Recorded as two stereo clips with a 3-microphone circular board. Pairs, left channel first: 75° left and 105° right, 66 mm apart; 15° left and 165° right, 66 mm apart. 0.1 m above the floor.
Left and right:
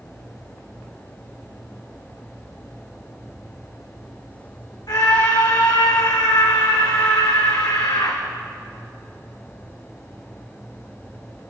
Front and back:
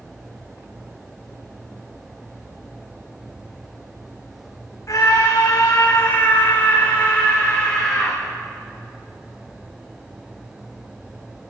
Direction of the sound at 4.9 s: 55° left.